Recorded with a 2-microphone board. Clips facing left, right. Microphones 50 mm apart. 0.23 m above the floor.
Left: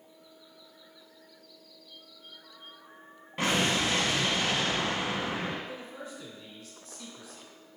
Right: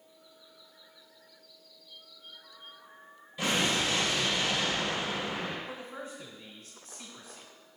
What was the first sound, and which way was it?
An explosion, 55° left (ahead or behind).